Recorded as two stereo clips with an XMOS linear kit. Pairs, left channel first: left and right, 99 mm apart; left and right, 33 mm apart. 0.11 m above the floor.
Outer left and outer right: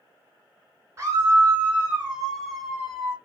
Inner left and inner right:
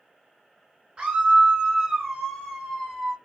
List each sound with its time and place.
1.0 s a scream: 25° right (ahead or behind), 1.8 m; by 3.2 s 10° left (ahead or behind), 1.9 m